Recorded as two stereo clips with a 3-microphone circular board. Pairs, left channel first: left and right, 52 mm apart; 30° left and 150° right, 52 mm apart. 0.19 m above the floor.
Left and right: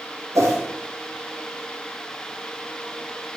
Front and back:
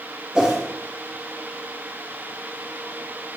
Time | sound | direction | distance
0.3 | a whoosh | 75° right | 3.5 m